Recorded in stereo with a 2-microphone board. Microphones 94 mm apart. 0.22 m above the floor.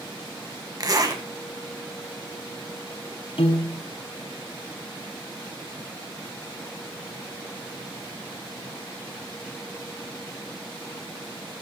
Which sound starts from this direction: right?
A zipper, at 0.8 s.